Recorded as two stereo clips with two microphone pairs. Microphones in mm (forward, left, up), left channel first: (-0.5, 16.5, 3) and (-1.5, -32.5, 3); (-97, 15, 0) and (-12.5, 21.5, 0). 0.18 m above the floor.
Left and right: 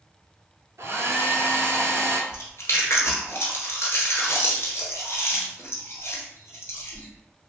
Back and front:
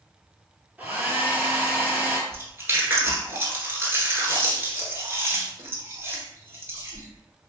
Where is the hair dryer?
70° right, 0.5 m.